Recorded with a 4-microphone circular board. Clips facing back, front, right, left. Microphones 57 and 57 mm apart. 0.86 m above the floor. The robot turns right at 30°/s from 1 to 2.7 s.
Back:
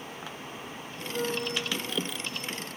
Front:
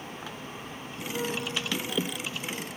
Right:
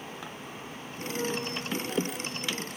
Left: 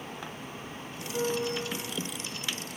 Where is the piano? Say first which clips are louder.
Back 1 dB, left 3 dB; 105° left, 4.5 m; by 1.9 s 130° left, 4.5 m.